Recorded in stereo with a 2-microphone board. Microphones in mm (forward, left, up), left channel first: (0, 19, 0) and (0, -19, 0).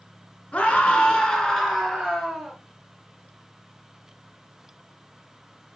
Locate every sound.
0.5 s a scream: 30° left (ahead or behind), 1.9 m; by 2.6 s centre (ahead or behind), 3 m